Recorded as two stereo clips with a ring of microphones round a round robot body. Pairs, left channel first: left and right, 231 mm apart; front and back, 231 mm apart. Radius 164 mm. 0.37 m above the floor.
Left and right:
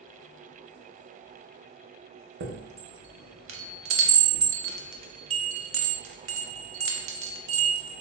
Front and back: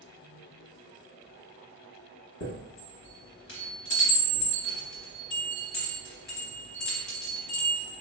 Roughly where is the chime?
Ahead right.